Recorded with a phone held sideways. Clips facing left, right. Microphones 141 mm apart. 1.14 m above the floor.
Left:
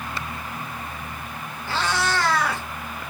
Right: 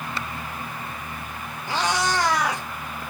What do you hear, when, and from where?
1.7 s a cat meowing: 15° right (ahead or behind), 0.7 m